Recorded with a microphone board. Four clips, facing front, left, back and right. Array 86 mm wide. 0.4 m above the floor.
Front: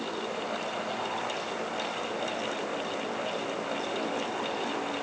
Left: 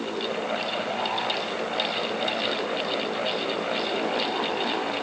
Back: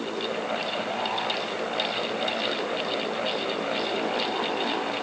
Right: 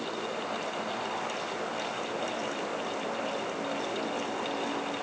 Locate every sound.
Only background noise.